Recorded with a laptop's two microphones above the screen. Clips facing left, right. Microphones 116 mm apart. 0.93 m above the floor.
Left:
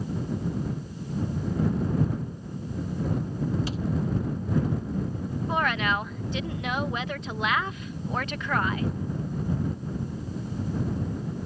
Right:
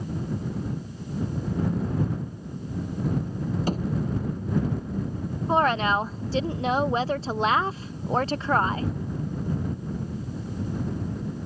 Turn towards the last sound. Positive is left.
turn(degrees=-35)  # may be behind; listen again after turning